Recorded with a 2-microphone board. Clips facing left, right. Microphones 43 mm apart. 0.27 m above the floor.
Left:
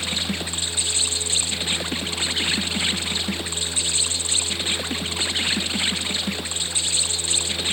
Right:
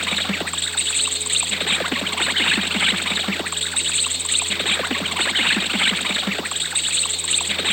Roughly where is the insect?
Right.